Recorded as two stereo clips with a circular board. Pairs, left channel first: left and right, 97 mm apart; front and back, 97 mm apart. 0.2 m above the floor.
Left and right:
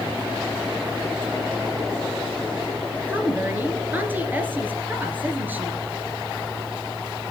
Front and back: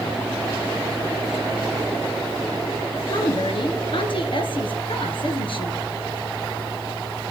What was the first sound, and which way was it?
A woman speaking, 20° right.